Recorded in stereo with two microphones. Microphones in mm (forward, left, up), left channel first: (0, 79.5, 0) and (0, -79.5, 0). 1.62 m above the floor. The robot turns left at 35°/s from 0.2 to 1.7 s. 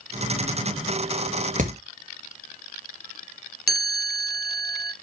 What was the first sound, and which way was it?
Hammering, 55° right (ahead or behind).